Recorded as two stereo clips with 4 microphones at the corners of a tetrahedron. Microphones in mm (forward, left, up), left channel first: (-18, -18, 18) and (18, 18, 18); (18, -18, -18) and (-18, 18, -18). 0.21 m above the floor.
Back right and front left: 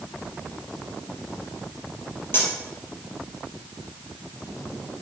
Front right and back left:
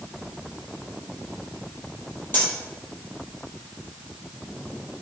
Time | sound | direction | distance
2.3 | cutlery clinking | 95° right | 3.5 m